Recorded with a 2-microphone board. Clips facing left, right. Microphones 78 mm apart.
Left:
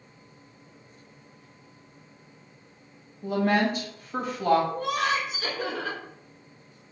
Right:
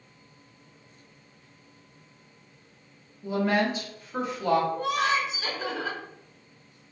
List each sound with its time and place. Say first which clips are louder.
3.2 s a woman speaking: left 1 dB; 60° left (ahead or behind), 1.2 m
4.7 s laughter: right 1 dB; 60° left (ahead or behind), 1.3 m